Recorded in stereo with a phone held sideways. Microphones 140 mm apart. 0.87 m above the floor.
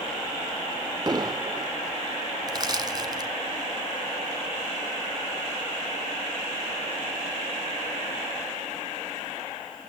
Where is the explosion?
30° right (ahead or behind), 0.6 m.